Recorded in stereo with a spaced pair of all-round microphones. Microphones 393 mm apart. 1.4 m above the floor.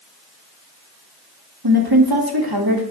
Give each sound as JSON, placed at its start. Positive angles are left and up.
{"t": 1.6, "sound": "a woman speaking", "side_deg": -65, "distance_m": 1.8}